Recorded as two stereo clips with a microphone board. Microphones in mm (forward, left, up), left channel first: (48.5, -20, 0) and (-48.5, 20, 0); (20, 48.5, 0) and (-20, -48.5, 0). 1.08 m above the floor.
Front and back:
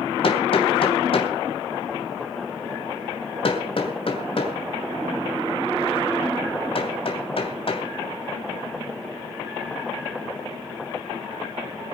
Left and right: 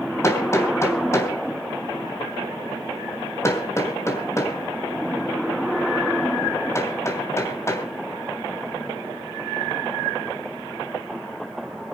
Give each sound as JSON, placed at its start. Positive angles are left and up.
{"t": 0.2, "sound": "hammering", "azimuth_deg": 5, "distance_m": 2.5}